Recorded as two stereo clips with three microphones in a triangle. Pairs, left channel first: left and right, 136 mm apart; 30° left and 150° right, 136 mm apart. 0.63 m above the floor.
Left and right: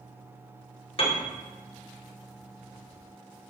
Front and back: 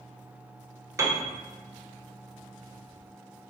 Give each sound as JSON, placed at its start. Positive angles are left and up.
{"t": 1.0, "sound": "a piano", "azimuth_deg": 140, "distance_m": 0.6}